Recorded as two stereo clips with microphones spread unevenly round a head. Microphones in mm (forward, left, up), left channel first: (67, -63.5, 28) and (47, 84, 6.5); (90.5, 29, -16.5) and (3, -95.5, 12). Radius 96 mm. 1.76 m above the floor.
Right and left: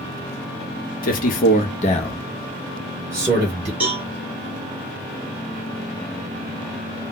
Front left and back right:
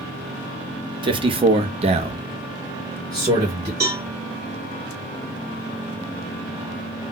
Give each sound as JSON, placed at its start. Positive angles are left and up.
{"t": 1.0, "sound": "a man speaking", "azimuth_deg": -75, "distance_m": 0.9}
{"t": 3.8, "sound": "a cowbell", "azimuth_deg": -175, "distance_m": 1.3}